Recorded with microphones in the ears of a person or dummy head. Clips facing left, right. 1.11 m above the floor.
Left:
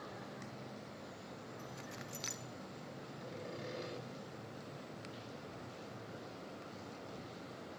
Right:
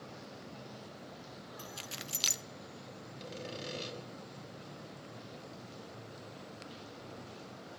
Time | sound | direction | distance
1.6 | keys jangling | 50° right (ahead or behind) | 0.6 m
3.2 | sawing | 45° right (ahead or behind) | 6 m